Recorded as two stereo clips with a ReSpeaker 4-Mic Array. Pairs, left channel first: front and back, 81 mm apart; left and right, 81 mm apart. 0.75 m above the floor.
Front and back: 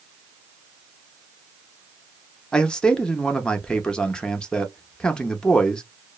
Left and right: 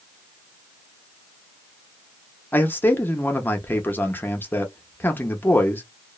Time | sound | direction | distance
2.5 | a man speaking | 65° left | 0.6 m